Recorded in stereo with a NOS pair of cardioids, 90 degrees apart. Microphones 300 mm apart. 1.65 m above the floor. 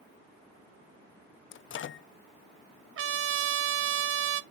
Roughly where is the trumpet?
Ahead right.